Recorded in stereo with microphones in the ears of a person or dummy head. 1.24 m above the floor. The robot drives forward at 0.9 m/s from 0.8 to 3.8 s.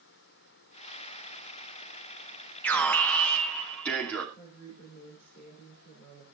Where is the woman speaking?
30° left (ahead or behind), 4 m.